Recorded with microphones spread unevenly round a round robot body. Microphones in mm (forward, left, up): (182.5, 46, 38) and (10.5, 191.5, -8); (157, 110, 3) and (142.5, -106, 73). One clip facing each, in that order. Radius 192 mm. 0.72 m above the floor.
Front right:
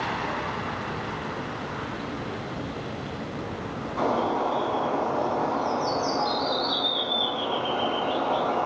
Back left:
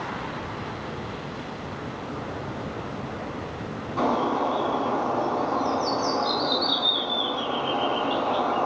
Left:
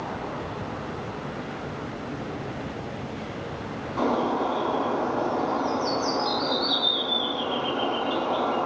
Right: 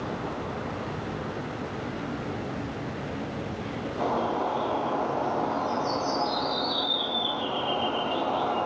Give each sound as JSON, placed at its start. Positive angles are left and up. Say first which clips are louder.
{"t": 4.0, "sound": "a bird", "louder": "back left 1 dB, left 5 dB", "azimuth_deg": 100, "distance_m": 8.5}